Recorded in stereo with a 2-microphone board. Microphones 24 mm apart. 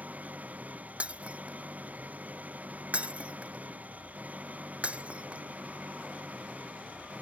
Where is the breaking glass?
55° right (ahead or behind).